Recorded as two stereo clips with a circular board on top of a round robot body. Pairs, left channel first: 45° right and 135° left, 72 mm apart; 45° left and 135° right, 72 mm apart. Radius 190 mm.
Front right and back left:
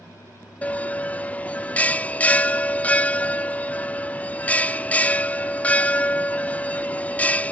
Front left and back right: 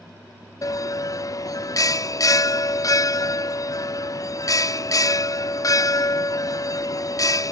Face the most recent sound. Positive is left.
turn(degrees=25)